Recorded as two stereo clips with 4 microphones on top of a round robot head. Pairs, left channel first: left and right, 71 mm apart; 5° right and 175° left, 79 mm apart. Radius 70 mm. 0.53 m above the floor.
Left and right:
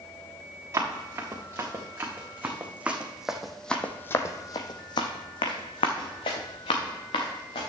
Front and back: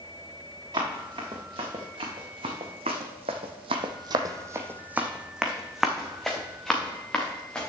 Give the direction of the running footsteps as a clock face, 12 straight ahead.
5 o'clock.